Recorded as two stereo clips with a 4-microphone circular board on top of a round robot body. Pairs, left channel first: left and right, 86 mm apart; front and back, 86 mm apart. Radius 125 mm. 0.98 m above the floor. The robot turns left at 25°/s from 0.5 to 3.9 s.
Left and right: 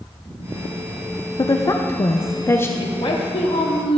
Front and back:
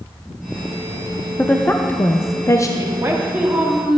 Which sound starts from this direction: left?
A woman speaking, at 1.4 s.